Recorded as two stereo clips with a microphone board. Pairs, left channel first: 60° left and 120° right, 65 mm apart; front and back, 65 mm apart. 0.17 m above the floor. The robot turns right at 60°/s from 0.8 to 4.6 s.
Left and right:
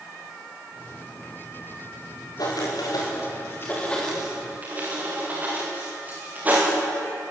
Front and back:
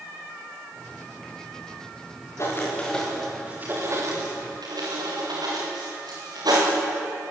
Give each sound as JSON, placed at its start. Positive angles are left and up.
{"t": 2.4, "sound": "writing", "azimuth_deg": 45, "distance_m": 9.0}